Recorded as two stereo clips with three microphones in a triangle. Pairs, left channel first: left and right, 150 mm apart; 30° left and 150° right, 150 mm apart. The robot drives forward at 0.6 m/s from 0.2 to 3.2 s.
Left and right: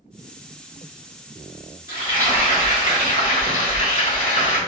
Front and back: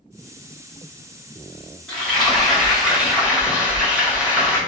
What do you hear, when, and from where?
1.9 s frying: 110° left, 2.0 m; by 4.6 s 130° left, 2.5 m